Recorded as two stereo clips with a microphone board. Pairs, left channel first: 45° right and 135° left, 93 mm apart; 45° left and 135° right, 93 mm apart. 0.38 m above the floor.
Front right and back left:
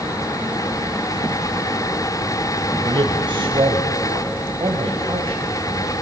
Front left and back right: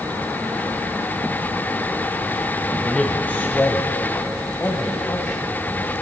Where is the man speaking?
120° left, 1.4 m; by 5.9 s 100° left, 3 m.